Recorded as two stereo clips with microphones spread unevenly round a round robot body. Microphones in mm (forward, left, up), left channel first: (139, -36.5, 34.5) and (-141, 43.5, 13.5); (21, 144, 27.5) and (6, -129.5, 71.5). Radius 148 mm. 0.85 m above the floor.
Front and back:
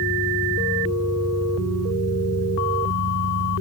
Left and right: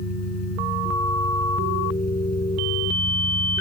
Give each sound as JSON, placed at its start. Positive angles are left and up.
{"t": 0.0, "sound": "an engine running", "azimuth_deg": 65}